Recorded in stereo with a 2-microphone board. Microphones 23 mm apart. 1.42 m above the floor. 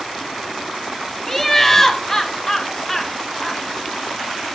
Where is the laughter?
10° left (ahead or behind), 1.4 m.